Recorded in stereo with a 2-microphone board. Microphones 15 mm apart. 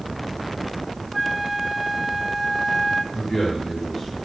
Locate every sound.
1.1 s a flute: 20° right (ahead or behind), 0.8 m
3.1 s a man speaking: 25° left (ahead or behind), 8 m